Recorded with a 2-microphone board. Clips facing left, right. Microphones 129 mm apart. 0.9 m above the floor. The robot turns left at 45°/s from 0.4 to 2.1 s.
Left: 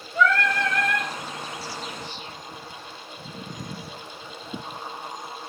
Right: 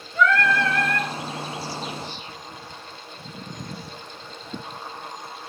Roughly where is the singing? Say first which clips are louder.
Right 2 dB; behind left.